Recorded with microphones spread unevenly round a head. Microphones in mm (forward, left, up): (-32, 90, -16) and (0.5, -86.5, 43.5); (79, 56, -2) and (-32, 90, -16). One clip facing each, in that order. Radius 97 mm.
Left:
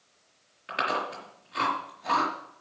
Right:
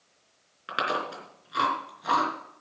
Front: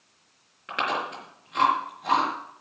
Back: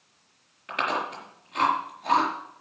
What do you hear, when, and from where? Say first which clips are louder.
0.7 s chewing: even, even; 75° right, 4 m